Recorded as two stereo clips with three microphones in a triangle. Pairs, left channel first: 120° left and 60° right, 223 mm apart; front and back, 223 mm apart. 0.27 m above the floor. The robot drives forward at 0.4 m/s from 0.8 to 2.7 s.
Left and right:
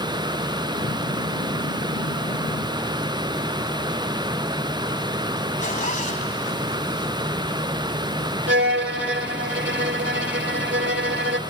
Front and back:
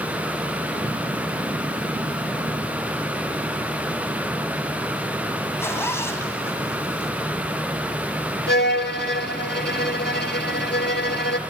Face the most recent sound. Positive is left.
turn(degrees=-35)